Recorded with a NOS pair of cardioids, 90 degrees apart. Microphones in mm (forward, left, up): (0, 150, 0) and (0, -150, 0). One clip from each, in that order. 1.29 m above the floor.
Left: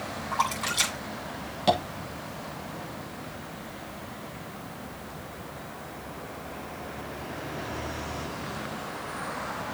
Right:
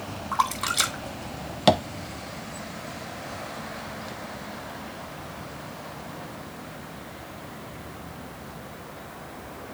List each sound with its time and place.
0.3 s a splash: 30° right, 3 m
1.7 s tapping: 50° right, 1.1 m